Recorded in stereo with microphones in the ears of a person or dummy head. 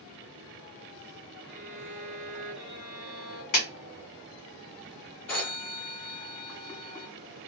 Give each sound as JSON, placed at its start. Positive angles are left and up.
{"t": 1.5, "sound": "a violin", "side_deg": -10, "distance_m": 1.7}
{"t": 3.5, "sound": "a clap", "side_deg": 45, "distance_m": 1.5}
{"t": 5.3, "sound": "a phone ringing", "side_deg": 10, "distance_m": 0.7}